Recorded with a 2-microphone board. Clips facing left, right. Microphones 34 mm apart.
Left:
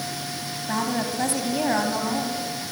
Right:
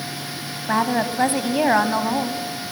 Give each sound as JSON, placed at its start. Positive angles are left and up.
{"t": 0.7, "sound": "a woman speaking", "side_deg": -30, "distance_m": 1.4}